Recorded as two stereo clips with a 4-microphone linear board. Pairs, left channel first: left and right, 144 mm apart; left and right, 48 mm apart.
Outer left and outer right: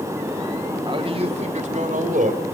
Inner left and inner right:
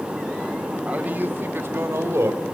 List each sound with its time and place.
0.8 s a man speaking: 30° right (ahead or behind), 1.8 m; by 2.5 s 70° right (ahead or behind), 3.5 m